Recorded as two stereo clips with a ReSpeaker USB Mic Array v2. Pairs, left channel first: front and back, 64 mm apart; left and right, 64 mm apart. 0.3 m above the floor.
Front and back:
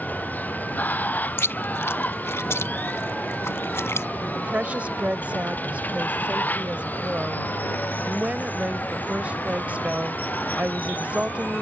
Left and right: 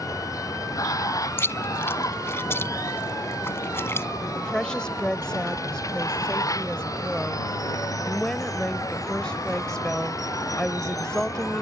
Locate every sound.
0.0 s running water: 60° left
1.4 s chewing: 45° left
4.3 s a woman speaking: 150° left